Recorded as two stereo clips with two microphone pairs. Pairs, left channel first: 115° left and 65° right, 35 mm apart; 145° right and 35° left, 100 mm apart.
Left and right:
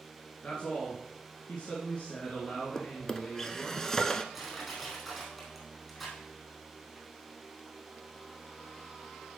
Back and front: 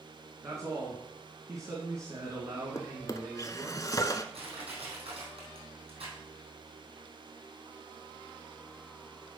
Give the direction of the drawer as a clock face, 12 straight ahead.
6 o'clock.